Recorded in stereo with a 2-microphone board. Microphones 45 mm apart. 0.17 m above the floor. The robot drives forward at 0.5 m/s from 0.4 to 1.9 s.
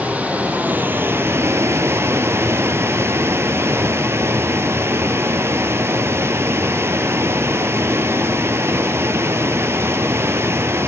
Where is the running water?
35° right (ahead or behind), 0.8 m; by 10.9 s 75° right (ahead or behind), 0.5 m.